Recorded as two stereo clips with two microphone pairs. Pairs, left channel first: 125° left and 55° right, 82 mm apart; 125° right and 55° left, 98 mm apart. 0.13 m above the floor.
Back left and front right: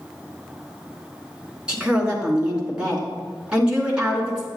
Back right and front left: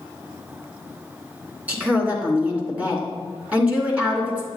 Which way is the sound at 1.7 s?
5° left.